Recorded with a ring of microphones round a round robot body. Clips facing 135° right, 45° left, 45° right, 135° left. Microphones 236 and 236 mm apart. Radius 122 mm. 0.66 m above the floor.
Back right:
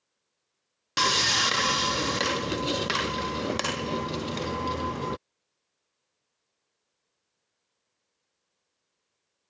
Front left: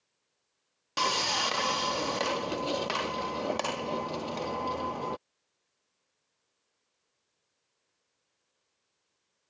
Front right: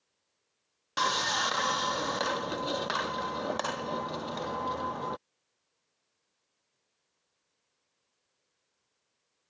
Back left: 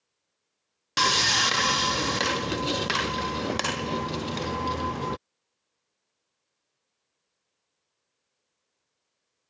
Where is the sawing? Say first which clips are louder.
Back right 3 dB, back left 5 dB; 170° left.